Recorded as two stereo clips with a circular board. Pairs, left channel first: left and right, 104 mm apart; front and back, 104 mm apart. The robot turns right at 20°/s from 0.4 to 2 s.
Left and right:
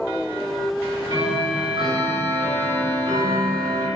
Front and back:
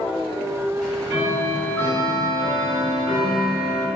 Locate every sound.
0.8 s ticking: 95° right, 1.1 m; by 3.9 s 70° right, 1.1 m